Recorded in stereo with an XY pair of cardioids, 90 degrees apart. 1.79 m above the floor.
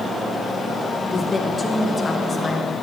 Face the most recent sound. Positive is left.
turn(degrees=40)